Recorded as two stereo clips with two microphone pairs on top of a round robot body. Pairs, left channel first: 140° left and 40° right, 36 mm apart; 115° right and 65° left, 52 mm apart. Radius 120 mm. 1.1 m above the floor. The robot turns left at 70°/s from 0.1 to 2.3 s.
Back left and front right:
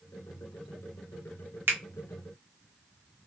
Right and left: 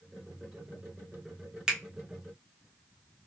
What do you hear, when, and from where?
1.7 s a finger snap: 15° right, 0.6 m; by 1.8 s 20° right, 0.6 m